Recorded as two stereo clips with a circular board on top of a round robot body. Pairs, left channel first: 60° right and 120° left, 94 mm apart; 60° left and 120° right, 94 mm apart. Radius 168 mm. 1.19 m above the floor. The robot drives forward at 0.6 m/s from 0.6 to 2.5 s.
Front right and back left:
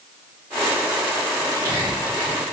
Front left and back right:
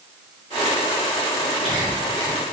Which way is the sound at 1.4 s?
120° right.